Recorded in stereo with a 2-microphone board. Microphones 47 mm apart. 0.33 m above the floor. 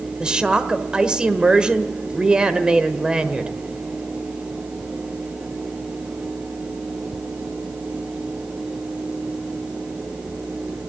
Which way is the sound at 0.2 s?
20° right (ahead or behind).